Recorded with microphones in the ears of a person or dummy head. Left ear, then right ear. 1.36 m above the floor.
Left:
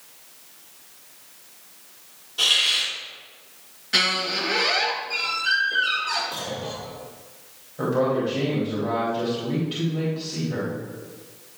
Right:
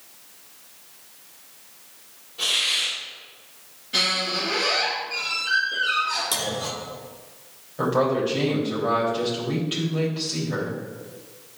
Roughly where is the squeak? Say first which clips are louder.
Left 1 dB; left.